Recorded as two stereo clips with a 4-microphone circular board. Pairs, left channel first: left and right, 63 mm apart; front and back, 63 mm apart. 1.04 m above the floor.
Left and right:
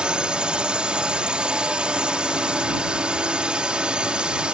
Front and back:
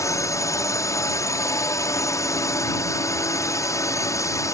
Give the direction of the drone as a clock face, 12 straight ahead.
1 o'clock.